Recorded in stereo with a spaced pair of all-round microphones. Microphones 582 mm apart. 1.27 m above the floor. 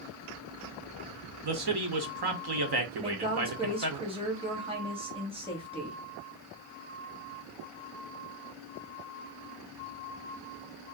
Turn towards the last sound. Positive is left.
turn(degrees=-10)  # may be behind; listen again after turning